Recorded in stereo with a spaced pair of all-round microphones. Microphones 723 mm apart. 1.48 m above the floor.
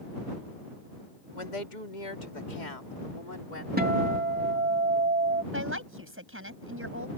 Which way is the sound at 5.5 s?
15° right (ahead or behind).